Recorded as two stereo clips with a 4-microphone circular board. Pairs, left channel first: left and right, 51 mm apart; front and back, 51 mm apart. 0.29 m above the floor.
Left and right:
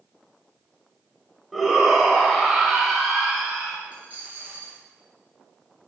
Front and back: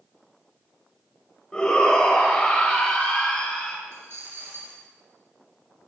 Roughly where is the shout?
Ahead.